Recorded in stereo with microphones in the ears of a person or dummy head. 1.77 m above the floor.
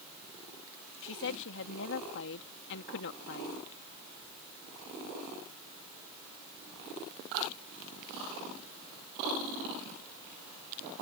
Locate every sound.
1.0 s a woman speaking: 75° left (ahead or behind)